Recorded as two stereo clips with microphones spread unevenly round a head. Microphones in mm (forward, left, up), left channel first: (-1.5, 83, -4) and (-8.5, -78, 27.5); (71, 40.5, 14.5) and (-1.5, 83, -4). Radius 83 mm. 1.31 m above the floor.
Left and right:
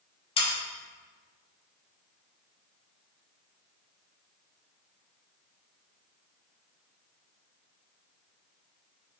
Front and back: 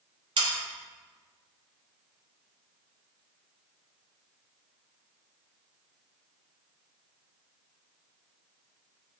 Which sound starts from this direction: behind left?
Sawing, at 0.4 s.